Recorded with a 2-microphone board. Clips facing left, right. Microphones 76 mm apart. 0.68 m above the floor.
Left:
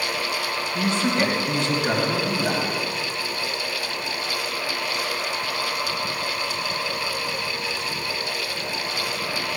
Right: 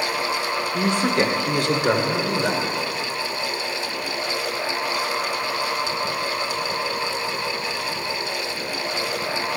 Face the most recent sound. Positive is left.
turn(degrees=-60)  # may be behind; listen again after turning